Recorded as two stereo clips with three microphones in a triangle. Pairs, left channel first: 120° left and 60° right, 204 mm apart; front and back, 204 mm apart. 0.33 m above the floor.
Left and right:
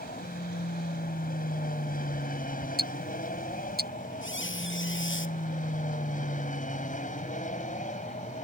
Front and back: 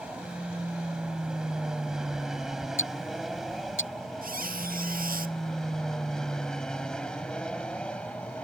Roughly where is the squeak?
Behind left.